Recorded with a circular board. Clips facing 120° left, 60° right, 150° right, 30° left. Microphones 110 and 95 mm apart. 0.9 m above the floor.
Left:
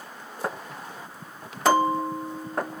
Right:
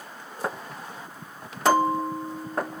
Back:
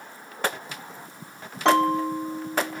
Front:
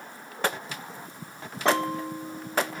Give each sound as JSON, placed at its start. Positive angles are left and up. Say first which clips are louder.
{"t": 1.6, "sound": "a bell", "louder": "even, back 6 dB", "azimuth_deg": -155, "distance_m": 1.0}